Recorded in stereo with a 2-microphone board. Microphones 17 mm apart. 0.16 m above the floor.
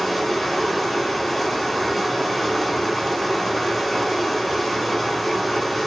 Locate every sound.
0.0 s running water: centre (ahead or behind), 2 m